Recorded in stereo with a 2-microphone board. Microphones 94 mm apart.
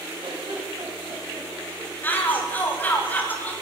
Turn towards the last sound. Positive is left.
turn(degrees=20)  # may be behind; listen again after turning